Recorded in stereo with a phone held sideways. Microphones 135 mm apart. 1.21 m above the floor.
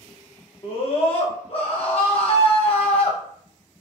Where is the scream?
45° left (ahead or behind), 0.7 m.